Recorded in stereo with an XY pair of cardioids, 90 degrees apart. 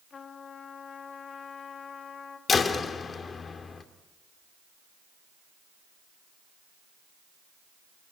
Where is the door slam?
45° left, 2 m.